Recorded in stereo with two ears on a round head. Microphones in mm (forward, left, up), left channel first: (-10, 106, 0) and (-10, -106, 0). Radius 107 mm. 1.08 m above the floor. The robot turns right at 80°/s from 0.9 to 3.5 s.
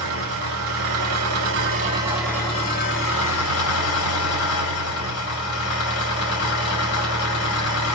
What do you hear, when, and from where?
0.0 s an engine running: 105° right, 1.9 m; by 7.9 s 100° left, 1.9 m